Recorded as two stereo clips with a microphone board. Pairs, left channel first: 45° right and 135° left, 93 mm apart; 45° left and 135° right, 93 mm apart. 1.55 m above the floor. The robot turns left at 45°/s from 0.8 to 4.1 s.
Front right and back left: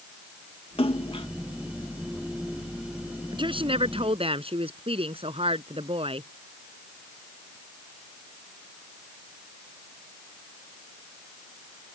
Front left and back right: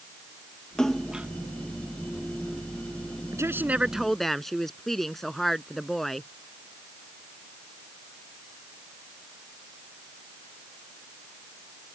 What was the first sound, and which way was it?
A splash, 40° right.